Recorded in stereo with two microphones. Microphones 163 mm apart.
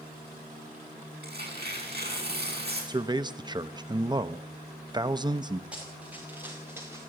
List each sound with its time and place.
1.2 s tearing paper: 80° right, 6.5 m
2.9 s a man speaking: 25° right (ahead or behind), 0.7 m
5.7 s running footsteps: 10° right (ahead or behind), 7 m; by 7.0 s 15° right (ahead or behind), 6 m